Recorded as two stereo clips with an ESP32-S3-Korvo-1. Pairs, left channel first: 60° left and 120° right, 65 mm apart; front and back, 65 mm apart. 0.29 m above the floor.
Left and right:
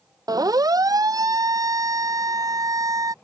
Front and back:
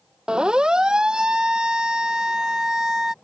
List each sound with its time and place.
0.3 s a siren: 105° right; by 3.1 s 100° right